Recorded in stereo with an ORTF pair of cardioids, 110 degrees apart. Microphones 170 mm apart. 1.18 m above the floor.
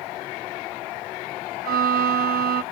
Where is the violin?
65° right, 0.8 m.